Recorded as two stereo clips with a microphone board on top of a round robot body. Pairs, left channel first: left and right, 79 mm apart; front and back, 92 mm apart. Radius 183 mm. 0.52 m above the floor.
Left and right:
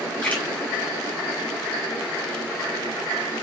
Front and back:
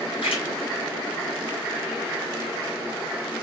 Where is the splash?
15° left, 5 m.